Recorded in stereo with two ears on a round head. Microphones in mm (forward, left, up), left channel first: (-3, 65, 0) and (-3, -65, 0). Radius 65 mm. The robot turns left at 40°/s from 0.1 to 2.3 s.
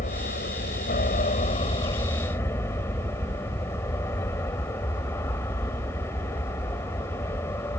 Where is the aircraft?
110° left; by 7.8 s 20° left.